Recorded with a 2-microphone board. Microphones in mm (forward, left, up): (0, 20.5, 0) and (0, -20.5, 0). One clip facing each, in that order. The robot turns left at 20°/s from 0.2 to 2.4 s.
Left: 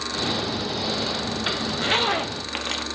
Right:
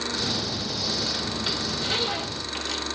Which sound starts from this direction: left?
A zipper, at 1.7 s.